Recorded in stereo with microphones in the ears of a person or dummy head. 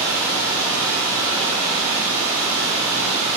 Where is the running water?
20° right (ahead or behind), 1.8 m.